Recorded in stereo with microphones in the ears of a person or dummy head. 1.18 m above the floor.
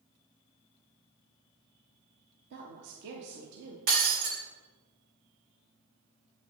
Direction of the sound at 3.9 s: 45° right (ahead or behind).